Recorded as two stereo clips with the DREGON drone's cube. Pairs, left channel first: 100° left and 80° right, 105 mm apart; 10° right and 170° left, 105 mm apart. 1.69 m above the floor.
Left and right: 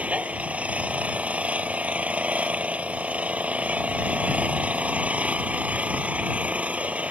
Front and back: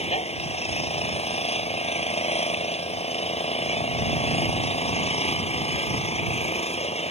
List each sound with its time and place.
0.0 s an engine running: straight ahead